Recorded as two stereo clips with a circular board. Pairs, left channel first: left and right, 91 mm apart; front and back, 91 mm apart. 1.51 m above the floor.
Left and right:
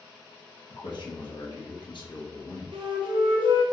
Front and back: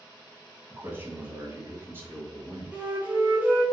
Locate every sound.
0.7 s a man speaking: 115° left, 0.9 m
2.7 s a flute: 110° right, 0.5 m